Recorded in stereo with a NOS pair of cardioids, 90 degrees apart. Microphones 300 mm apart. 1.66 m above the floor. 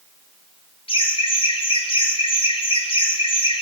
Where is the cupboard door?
No cupboard door in this recording.